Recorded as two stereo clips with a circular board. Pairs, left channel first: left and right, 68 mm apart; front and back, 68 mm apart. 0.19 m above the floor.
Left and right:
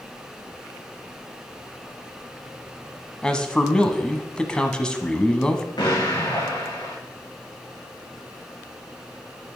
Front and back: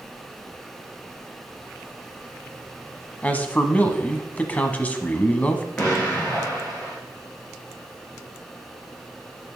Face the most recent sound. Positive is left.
turn(degrees=75)